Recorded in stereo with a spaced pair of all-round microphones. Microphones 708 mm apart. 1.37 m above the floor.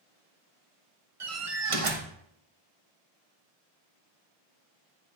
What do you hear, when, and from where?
1.2 s a door slam: 45° right (ahead or behind), 1.1 m